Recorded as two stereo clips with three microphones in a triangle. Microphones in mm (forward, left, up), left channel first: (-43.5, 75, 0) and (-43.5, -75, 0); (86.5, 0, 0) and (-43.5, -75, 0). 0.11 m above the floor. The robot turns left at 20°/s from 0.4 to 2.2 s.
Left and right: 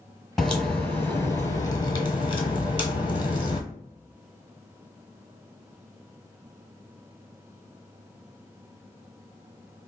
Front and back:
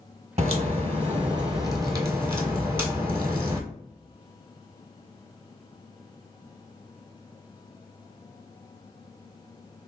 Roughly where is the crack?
Behind.